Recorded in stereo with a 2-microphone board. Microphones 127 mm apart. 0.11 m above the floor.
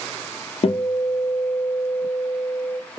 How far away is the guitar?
About 0.6 m.